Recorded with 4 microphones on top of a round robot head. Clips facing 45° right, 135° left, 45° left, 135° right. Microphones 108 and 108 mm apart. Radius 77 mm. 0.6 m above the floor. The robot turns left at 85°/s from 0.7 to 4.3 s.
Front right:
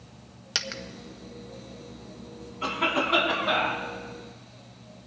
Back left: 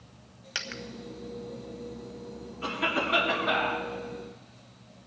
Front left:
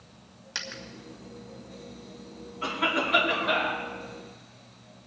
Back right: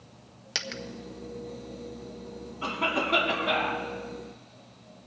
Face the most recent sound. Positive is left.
turn(degrees=155)